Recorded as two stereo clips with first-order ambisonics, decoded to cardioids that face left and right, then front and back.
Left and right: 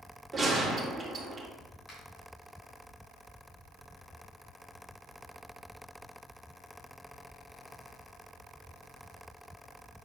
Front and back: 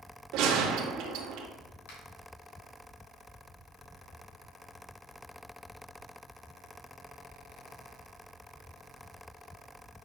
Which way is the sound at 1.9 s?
10° left.